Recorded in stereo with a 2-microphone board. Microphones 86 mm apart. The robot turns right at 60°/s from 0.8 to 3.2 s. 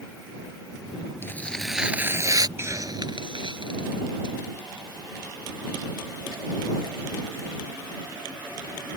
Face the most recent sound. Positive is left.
turn(degrees=-65)  # may be behind; listen again after turning